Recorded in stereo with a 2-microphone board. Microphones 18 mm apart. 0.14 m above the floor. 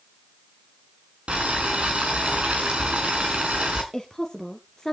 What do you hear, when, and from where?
1.3 s boiling: 75° right (ahead or behind), 5 m
3.9 s a woman speaking: 20° left (ahead or behind), 1.7 m